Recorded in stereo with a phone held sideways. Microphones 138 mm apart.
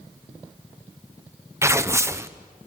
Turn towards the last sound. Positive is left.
turn(degrees=-20)  # may be behind; listen again after turning